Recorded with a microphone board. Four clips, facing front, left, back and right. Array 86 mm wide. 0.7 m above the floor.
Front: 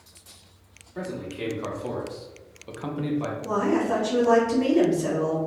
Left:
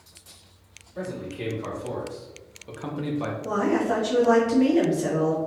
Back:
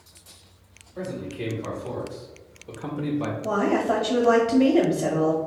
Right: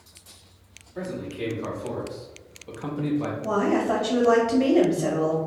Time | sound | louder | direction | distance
0.9 | a man speaking | right 1 dB, even | 15° right | 1.6 m
3.4 | a woman speaking | even, back 1 dB | 160° right | 0.8 m